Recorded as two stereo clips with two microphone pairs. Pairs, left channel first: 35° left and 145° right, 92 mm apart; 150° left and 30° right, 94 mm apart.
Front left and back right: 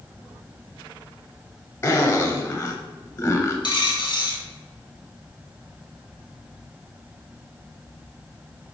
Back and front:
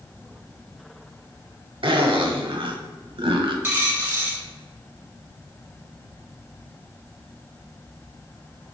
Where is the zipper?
20° right, 0.5 m.